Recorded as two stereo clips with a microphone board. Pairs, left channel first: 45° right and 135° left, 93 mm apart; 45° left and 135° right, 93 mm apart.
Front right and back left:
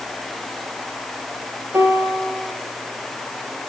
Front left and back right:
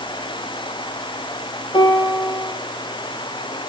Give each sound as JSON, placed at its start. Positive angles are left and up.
{"t": 1.7, "sound": "a piano", "azimuth_deg": 70, "distance_m": 3.0}